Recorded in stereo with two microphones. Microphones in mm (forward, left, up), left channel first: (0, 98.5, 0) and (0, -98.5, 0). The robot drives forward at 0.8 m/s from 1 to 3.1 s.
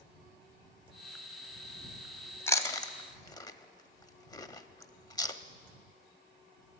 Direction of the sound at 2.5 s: 15° left (ahead or behind).